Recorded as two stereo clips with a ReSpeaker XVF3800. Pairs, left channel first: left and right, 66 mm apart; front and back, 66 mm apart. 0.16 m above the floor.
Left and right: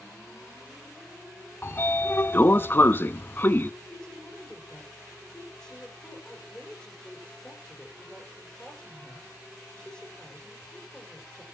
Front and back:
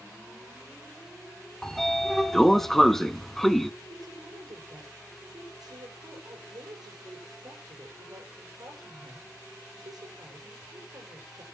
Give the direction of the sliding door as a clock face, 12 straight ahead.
9 o'clock.